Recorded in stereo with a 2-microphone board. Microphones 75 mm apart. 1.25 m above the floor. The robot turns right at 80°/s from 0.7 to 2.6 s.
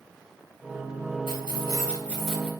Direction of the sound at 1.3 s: 95° left.